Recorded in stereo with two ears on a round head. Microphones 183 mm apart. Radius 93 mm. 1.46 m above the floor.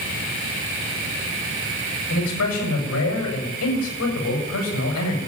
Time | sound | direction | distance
2.1 | a man speaking | 80° left | 6.5 m